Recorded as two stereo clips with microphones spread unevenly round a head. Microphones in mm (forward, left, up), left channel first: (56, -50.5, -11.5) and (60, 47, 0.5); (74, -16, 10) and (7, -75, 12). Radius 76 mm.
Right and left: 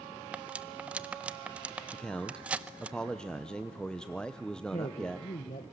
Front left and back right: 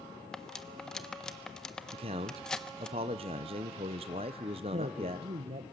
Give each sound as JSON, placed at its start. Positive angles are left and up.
{"t": 0.3, "sound": "cutlery clinking", "azimuth_deg": 120, "distance_m": 0.5}
{"t": 1.9, "sound": "a man speaking", "azimuth_deg": -175, "distance_m": 0.8}
{"t": 4.7, "sound": "a man speaking", "azimuth_deg": -135, "distance_m": 1.4}